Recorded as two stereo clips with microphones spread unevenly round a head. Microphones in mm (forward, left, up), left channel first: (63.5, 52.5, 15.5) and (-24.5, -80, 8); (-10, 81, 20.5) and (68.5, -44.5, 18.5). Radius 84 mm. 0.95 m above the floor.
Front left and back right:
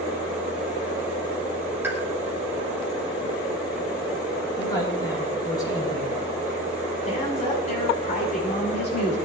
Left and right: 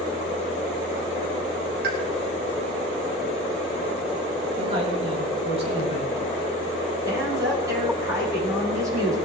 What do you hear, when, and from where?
1.8 s a pop: 45° right, 3 m
4.6 s a man speaking: 10° right, 6 m
7.0 s a woman speaking: 10° left, 8.5 m